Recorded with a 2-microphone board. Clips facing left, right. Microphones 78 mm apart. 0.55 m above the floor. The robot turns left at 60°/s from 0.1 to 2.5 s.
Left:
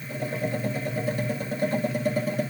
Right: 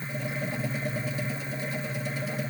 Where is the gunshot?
I don't hear a gunshot.